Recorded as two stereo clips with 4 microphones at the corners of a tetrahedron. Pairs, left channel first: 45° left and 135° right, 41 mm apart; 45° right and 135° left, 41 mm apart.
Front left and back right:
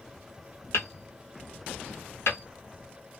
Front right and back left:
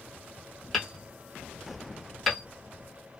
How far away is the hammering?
About 1.2 m.